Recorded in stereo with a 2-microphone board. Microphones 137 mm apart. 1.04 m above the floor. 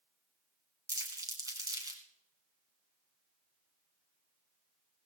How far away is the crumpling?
About 2.5 m.